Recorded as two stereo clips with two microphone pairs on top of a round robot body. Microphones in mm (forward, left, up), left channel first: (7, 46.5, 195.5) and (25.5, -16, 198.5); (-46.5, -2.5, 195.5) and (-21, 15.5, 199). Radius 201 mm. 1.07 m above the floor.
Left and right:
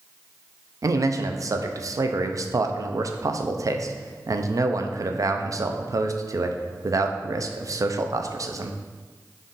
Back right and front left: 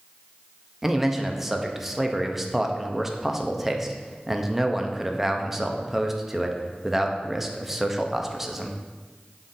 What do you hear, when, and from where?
0.8 s a man speaking: 50° right, 0.5 m